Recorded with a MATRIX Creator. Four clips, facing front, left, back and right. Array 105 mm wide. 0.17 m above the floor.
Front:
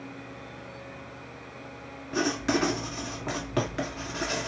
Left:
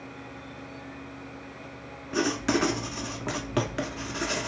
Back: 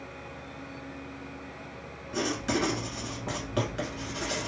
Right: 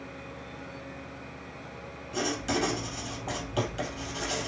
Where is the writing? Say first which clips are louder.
Left 4 dB, front 3 dB; 65° left, 0.8 m.